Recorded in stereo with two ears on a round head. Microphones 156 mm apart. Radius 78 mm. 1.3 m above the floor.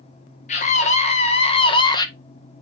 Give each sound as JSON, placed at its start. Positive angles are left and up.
{"t": 0.5, "sound": "a scream", "side_deg": 40, "distance_m": 1.9}